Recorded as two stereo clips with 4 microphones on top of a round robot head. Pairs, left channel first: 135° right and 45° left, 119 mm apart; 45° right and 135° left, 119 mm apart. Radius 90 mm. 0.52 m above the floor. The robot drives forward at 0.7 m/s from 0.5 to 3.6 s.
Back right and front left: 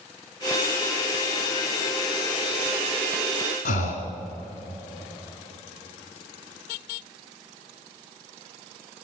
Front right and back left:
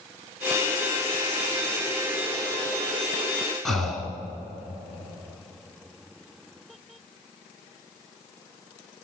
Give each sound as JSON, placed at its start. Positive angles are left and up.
{"t": 3.6, "sound": "breathing", "azimuth_deg": -135, "distance_m": 1.8}